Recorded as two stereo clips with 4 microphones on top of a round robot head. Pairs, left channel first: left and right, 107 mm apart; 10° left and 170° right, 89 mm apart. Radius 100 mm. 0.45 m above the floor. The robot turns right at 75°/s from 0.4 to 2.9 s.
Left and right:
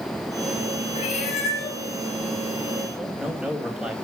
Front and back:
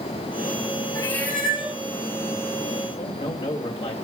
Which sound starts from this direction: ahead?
A man speaking, at 3.0 s.